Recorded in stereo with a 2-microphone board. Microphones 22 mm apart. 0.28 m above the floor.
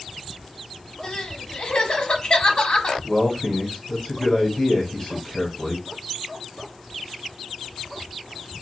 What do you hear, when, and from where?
1.0 s crying: 45° left (ahead or behind), 0.8 m
3.0 s a man speaking: 35° left (ahead or behind), 1.5 m